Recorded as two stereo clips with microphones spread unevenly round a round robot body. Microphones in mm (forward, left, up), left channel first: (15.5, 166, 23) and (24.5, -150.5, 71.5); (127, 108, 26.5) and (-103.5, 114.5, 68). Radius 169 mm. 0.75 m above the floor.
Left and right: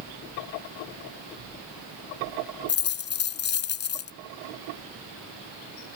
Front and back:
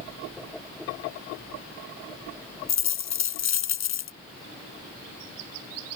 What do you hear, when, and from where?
2.7 s a dropped coin: 30° left